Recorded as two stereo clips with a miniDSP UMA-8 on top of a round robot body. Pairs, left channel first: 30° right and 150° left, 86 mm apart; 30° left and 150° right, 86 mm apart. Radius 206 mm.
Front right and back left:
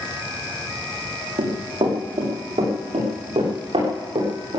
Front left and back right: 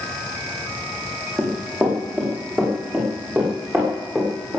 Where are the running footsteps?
135° left, 5 m; by 4.6 s 140° left, 8 m.